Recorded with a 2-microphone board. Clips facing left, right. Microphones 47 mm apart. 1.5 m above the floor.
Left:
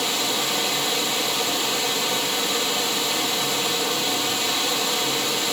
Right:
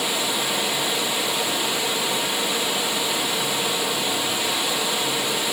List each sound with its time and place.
0.0 s running water: 15° right (ahead or behind), 1.0 m